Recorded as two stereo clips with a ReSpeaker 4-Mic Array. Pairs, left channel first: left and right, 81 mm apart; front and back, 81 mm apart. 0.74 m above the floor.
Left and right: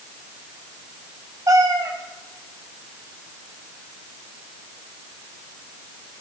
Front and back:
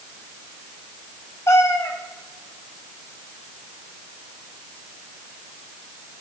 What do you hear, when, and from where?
1.5 s a cat meowing: 50° right, 1.5 m